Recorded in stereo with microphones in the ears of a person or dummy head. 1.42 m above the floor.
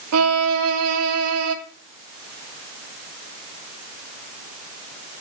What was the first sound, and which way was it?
A violin, 80° right.